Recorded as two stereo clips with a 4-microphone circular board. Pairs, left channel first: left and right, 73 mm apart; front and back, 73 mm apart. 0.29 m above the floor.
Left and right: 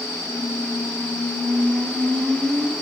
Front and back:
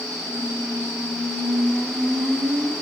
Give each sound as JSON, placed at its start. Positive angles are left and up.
{"t": 0.2, "sound": "a squeak", "azimuth_deg": -170, "distance_m": 3.0}